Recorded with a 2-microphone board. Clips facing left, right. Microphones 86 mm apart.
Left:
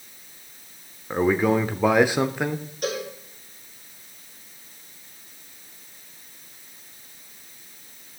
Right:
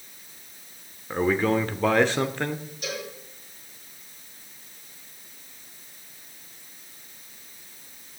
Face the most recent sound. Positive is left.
turn(degrees=50)  # may be behind; listen again after turning